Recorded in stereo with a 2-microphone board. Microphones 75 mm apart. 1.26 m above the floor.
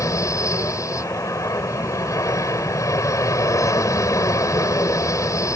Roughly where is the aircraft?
Left.